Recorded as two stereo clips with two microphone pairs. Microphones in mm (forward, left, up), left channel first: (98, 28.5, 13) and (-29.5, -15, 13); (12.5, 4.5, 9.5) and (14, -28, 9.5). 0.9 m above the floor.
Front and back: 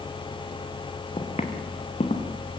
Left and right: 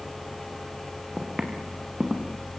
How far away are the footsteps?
About 3.5 m.